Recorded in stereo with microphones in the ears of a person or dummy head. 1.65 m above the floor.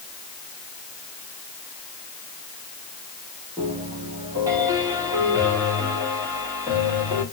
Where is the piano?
15° right (ahead or behind), 2 m.